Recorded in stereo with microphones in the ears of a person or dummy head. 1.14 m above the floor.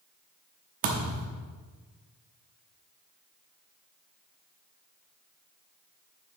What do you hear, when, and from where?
0.8 s a thud: 35° right (ahead or behind), 0.9 m